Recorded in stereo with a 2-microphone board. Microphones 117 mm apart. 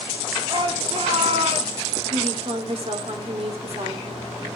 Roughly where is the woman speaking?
Right.